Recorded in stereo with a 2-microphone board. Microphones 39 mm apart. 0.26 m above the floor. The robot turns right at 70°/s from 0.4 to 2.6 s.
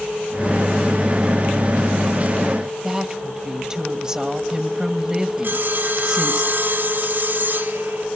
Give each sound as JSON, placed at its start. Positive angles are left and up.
{"t": 2.8, "sound": "a woman speaking", "side_deg": -20, "distance_m": 1.4}
{"t": 5.4, "sound": "sawing", "side_deg": -60, "distance_m": 1.5}